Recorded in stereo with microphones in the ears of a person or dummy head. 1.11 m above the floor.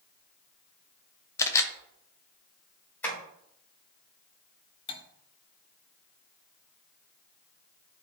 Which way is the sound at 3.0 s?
10° left (ahead or behind).